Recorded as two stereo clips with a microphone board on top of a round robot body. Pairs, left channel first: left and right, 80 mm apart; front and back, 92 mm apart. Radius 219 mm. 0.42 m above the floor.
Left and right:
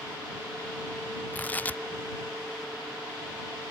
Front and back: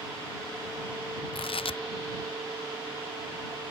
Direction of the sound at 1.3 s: 20° left.